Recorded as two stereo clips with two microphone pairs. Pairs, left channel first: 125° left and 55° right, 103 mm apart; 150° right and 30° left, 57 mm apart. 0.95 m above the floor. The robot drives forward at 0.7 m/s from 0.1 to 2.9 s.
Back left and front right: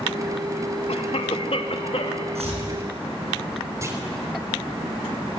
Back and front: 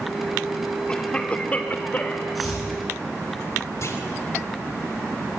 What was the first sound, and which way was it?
A cough, 135° left.